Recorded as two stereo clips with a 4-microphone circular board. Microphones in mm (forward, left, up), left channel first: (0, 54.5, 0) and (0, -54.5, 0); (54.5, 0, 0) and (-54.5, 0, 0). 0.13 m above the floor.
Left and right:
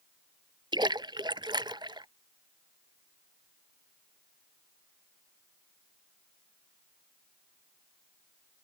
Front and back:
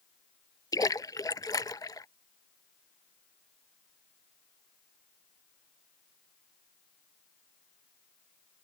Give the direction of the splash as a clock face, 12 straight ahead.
2 o'clock.